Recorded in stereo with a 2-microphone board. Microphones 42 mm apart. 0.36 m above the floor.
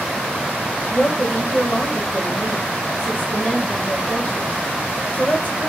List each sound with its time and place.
0.9 s a woman speaking: 40° left (ahead or behind), 1.1 m